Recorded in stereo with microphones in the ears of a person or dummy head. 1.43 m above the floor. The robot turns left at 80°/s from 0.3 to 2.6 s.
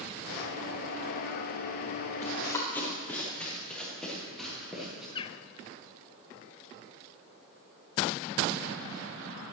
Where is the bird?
25° left (ahead or behind), 0.6 m.